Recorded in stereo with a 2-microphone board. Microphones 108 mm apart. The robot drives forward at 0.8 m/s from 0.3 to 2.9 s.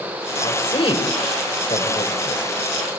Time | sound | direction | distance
0.4 | a woman speaking | 60° left (ahead or behind) | 3.5 m